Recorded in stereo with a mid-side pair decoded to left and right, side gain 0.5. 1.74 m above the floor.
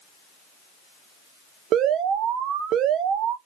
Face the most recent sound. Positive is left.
turn(degrees=-70)